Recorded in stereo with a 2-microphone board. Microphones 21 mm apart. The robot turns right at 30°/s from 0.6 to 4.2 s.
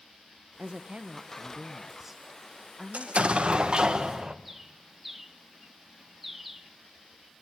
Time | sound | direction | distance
0.6 | a woman speaking | 60° right | 0.9 m
2.9 | an explosion | 65° right | 1.6 m
4.5 | a bird | 5° right (ahead or behind) | 1.6 m